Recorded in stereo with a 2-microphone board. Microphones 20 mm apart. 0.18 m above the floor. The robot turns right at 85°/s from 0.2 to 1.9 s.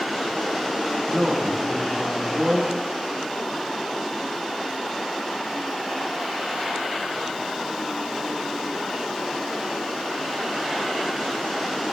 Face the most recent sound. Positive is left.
turn(degrees=-110)